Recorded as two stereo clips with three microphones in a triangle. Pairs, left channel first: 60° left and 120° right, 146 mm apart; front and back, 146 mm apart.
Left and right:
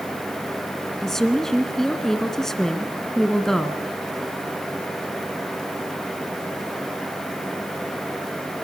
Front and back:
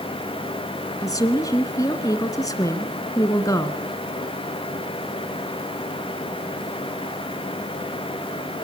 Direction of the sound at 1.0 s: 25° right.